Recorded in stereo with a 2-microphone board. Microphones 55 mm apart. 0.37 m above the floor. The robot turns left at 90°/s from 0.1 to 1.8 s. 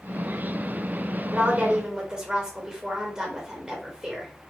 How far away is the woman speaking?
About 1.4 m.